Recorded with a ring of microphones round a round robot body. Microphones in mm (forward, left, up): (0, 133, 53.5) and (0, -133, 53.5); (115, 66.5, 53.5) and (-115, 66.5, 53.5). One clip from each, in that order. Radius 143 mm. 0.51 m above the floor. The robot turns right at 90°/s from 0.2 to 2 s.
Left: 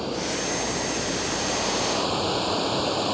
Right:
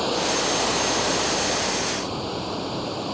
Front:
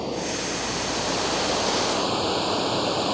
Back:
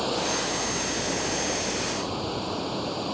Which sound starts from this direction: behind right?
Running water, at 0.0 s.